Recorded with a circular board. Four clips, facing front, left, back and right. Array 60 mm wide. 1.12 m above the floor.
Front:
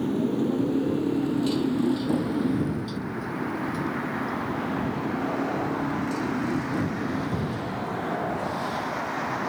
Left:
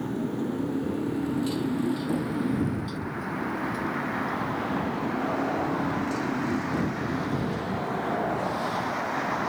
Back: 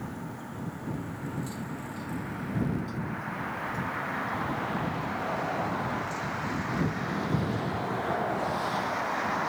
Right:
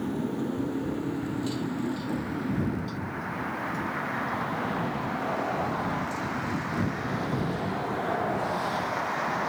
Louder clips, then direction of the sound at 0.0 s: Left 1 dB, front 14 dB; 5° right.